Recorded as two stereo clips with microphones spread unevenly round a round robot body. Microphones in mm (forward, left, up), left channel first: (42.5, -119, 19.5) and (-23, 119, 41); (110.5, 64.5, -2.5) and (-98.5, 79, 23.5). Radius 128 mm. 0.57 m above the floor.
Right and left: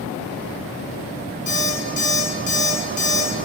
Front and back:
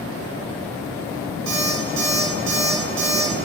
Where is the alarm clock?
135° right, 3 m.